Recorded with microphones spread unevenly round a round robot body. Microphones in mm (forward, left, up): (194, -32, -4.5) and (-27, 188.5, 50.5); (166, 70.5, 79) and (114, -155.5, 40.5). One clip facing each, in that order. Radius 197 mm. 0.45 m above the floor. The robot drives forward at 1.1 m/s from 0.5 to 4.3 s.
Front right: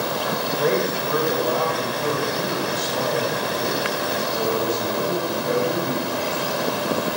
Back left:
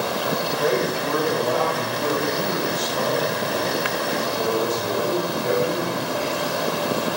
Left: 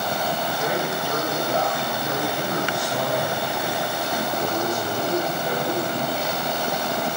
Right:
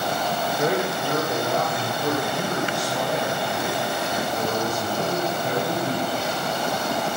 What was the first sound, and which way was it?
A man speaking, 95° right.